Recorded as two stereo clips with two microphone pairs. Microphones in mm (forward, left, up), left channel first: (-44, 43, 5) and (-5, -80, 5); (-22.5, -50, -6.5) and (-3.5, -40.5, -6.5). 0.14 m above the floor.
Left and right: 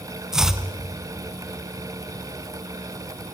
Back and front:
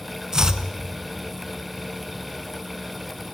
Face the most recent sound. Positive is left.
turn(degrees=10)